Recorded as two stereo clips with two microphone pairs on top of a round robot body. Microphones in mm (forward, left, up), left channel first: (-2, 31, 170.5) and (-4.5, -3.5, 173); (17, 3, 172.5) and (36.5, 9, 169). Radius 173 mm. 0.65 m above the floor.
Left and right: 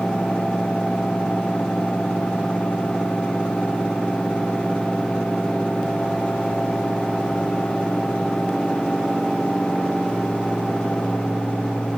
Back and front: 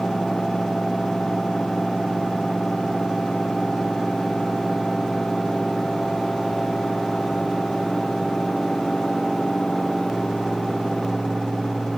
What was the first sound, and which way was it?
Only background noise.